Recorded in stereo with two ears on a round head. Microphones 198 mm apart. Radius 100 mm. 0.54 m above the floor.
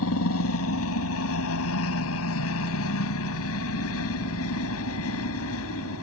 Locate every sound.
0.0 s a helicopter: 70° left (ahead or behind)